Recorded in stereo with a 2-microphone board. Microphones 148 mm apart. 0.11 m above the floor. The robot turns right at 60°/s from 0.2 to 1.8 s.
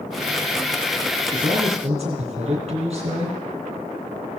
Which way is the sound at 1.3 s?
65° right (ahead or behind).